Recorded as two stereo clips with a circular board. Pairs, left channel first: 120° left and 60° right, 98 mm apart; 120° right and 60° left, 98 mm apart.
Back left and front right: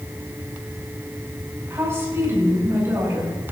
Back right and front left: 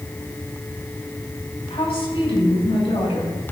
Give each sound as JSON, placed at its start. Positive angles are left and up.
{"t": 1.7, "sound": "a woman speaking", "azimuth_deg": -125, "distance_m": 7.0}